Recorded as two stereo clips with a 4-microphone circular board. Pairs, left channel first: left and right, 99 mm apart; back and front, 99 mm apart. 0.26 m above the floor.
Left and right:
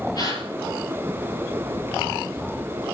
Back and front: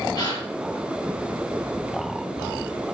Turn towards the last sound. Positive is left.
turn(degrees=135)